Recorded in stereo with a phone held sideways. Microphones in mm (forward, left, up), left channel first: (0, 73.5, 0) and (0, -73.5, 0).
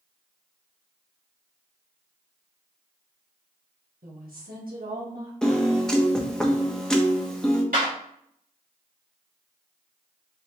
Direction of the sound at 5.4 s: 5° left (ahead or behind).